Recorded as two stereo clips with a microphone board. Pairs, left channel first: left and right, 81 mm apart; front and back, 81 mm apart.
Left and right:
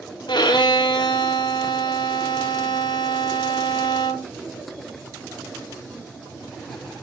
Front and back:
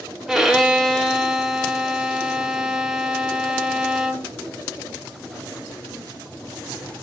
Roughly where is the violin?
Left.